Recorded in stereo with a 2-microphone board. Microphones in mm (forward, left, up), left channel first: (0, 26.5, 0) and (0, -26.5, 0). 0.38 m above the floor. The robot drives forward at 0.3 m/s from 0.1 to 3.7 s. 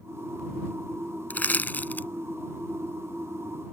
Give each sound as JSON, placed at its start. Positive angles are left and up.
{"t": 1.3, "sound": "crushing", "side_deg": 30}